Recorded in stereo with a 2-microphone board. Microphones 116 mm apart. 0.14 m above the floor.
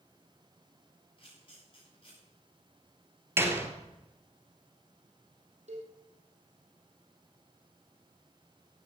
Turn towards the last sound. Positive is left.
turn(degrees=-75)  # may be behind; listen again after turning